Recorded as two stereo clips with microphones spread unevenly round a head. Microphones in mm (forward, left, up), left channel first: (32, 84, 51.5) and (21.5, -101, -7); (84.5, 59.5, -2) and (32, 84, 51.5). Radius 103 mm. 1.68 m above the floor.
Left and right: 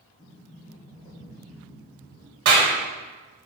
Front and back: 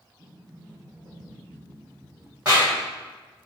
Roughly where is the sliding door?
Behind left.